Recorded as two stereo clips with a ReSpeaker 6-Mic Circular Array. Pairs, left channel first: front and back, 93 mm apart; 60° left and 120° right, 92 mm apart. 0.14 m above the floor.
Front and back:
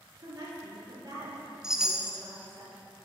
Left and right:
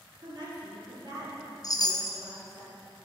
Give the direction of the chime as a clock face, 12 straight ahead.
9 o'clock.